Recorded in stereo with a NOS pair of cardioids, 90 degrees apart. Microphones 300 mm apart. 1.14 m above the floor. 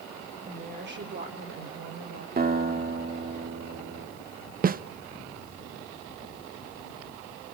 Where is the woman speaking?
25° right, 3 m; by 2.3 s 55° right, 5 m.